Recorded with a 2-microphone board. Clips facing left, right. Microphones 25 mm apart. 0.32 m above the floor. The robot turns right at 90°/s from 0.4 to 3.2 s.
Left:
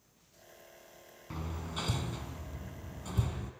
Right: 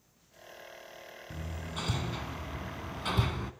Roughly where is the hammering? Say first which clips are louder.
Left 1 dB; left.